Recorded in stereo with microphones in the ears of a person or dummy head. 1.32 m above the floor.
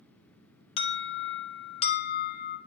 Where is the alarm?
35° left (ahead or behind), 1.8 m.